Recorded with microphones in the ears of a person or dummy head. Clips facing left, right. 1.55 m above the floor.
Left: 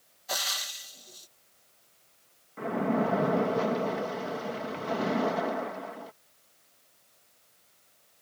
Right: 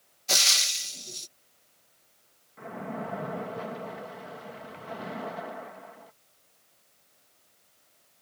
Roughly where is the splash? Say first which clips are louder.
Left 9 dB; left.